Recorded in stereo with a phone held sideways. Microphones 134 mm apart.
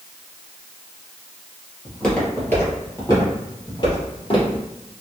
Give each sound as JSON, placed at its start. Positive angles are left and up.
{"t": 1.9, "sound": "footsteps", "side_deg": 0, "distance_m": 1.5}